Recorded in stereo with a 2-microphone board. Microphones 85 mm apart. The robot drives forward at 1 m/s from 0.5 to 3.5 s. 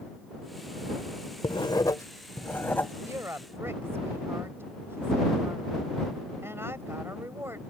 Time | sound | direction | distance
1.4 | writing | 65° left (ahead or behind) | ?
3.0 | a woman speaking | 35° right (ahead or behind) | ?